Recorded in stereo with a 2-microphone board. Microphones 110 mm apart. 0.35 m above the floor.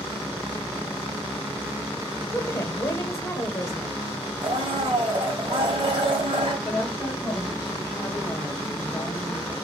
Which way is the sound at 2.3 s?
30° left (ahead or behind).